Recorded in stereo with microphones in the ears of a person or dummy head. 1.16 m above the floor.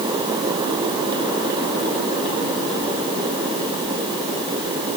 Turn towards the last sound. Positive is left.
No sound to turn to.